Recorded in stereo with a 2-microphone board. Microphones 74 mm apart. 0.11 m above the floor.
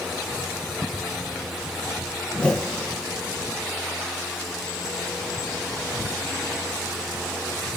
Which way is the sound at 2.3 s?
10° left (ahead or behind).